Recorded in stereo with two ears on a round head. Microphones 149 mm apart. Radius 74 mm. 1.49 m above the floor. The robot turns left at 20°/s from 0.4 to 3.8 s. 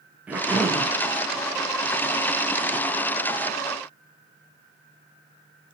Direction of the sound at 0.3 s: 10° right (ahead or behind).